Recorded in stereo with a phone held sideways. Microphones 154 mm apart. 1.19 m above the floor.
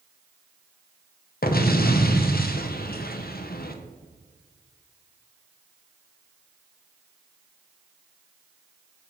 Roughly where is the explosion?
Left.